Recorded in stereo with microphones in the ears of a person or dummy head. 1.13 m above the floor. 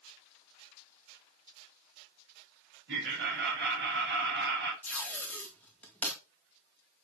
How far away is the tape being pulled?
About 1.9 m.